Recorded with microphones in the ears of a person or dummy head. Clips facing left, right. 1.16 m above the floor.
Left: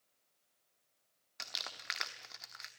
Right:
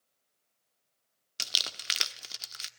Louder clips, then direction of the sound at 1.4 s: Right 4 dB; 45° right (ahead or behind).